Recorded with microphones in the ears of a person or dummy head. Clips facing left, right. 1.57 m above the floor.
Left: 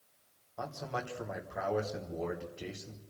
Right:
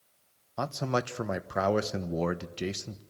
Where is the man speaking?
75° right (ahead or behind), 1.2 m.